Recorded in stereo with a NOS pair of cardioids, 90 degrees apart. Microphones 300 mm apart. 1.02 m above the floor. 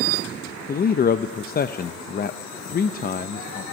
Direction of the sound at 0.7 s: 35° left.